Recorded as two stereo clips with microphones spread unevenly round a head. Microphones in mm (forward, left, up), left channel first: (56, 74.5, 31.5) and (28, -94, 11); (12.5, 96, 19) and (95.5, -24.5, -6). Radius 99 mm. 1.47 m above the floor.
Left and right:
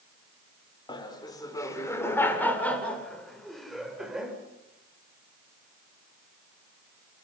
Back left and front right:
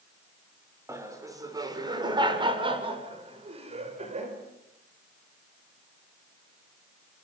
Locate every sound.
0.9 s laughter: 15° left, 6 m; by 4.3 s 15° right, 7.5 m